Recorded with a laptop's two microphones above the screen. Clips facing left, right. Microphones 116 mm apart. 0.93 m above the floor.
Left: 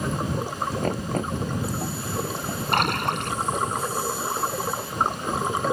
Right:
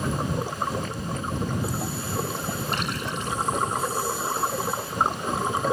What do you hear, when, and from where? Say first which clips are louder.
0.8 s knocking: left 5 dB; 60° left (ahead or behind)
2.7 s a splash: left 6 dB; 75° left (ahead or behind)